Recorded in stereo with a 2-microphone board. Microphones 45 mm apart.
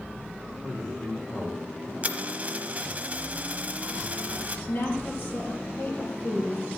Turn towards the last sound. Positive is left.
turn(degrees=45)  # may be behind; listen again after turning